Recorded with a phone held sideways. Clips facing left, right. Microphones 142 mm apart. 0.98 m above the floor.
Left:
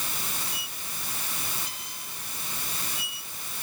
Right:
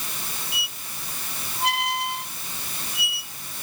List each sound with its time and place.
0.5 s a squeak: 90° right